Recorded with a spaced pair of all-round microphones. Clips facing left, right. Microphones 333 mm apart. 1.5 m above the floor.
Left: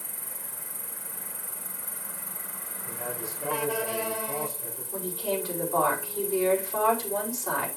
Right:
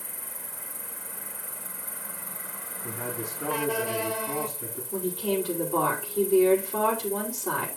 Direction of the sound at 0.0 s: 50° left (ahead or behind).